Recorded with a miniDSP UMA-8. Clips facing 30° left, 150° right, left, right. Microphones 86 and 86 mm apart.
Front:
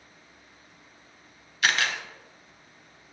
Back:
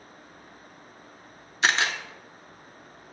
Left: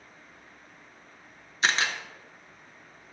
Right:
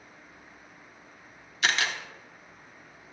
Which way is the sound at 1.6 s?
145° left.